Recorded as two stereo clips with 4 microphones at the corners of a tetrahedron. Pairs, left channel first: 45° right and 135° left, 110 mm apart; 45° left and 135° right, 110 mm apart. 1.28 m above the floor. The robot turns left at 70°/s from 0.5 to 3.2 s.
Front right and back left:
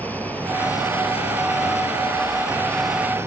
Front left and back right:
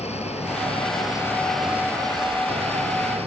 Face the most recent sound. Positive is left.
turn(degrees=-160)